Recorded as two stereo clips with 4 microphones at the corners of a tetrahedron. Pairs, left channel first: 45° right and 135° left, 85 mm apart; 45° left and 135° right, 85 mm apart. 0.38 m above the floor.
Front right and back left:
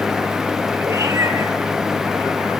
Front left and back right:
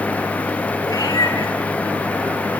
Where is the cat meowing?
85° left, 2.5 m.